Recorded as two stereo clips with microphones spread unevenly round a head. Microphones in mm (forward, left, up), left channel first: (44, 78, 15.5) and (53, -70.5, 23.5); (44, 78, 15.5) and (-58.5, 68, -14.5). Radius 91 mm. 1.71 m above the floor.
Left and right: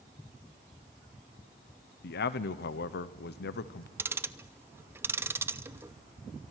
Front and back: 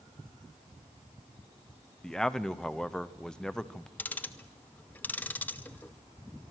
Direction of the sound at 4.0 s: 30° right.